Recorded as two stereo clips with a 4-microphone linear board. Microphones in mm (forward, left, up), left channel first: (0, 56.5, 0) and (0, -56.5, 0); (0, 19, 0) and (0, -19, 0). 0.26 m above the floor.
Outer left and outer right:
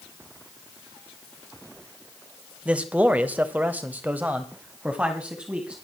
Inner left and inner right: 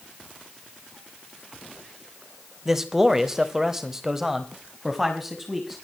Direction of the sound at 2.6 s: 10° right (ahead or behind).